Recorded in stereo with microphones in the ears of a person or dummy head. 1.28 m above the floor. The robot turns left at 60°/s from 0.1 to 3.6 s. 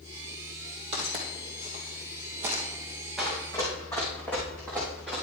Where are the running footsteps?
Centre (ahead or behind), 3 m; by 5.2 s 5° left (ahead or behind), 4 m.